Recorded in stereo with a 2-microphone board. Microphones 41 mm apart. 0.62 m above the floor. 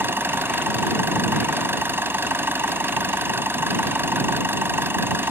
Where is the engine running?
70° right (ahead or behind).